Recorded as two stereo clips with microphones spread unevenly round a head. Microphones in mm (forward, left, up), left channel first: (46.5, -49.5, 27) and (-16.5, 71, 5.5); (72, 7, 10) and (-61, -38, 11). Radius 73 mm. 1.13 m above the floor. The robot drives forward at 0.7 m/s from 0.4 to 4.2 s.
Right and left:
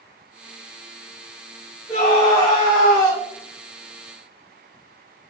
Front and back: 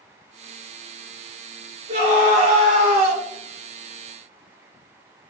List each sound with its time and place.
1.9 s a scream: 125° right, 4 m; by 3.2 s 135° right, 4.5 m